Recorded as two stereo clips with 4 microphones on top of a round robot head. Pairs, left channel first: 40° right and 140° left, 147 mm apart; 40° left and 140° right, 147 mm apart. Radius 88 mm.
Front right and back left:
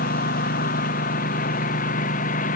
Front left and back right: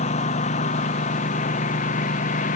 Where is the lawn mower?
10° right; by 2.6 s straight ahead.